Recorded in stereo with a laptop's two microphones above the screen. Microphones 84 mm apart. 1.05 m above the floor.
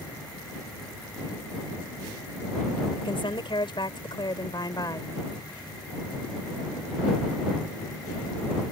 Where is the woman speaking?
80° left; by 5.1 s 50° left (ahead or behind).